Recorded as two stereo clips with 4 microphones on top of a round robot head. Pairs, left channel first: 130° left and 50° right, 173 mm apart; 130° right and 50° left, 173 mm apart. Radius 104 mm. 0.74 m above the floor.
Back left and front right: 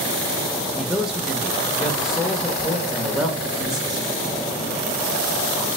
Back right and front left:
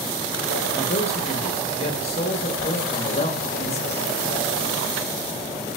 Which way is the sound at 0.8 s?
135° right.